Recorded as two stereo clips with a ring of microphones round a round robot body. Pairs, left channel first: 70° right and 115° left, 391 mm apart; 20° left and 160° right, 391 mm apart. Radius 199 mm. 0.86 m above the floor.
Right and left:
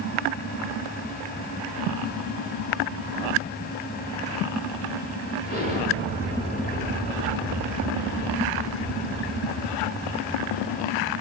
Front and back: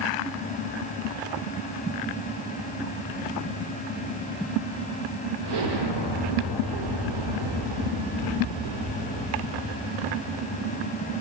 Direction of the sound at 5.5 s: 135° right.